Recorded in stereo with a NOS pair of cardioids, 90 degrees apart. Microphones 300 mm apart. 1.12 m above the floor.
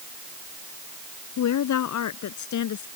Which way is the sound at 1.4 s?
70° left.